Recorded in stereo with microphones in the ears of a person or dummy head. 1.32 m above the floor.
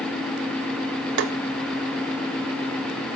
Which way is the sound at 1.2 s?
60° right (ahead or behind).